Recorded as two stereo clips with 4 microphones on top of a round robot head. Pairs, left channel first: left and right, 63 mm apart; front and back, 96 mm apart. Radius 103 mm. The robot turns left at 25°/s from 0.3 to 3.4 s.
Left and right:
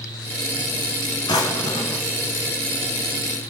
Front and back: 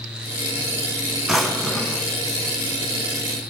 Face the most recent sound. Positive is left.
turn(degrees=40)